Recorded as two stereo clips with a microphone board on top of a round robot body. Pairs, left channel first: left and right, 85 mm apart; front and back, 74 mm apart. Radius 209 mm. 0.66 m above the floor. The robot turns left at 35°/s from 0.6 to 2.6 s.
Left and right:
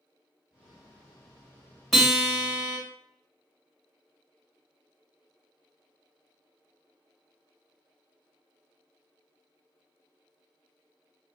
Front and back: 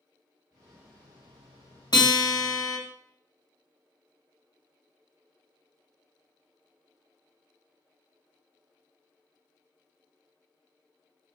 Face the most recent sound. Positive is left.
turn(degrees=-25)